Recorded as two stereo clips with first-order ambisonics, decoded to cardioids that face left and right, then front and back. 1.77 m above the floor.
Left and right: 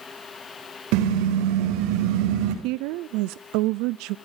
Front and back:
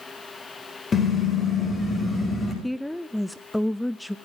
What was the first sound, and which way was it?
A car horn, 70° right.